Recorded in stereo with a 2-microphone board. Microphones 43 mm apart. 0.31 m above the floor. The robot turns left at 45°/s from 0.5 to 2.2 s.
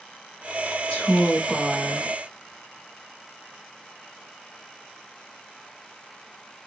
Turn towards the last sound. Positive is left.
turn(degrees=-40)